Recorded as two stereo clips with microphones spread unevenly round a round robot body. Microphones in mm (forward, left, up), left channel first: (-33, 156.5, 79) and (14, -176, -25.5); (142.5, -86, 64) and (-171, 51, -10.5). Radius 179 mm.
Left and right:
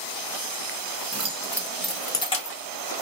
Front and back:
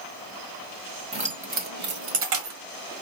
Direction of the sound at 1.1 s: 140° right.